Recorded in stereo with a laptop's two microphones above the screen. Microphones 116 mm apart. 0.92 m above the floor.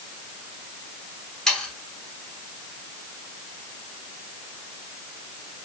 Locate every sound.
1.5 s sawing: 5° left (ahead or behind), 0.9 m